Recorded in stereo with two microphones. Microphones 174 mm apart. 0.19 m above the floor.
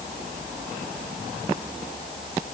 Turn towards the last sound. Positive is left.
No sound to turn to.